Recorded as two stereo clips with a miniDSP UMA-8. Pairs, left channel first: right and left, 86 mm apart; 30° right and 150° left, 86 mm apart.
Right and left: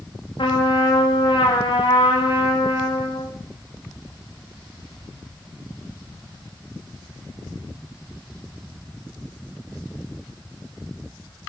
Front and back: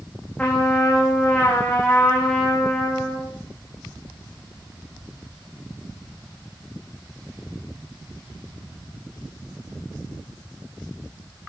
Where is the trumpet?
105° right, 7 m.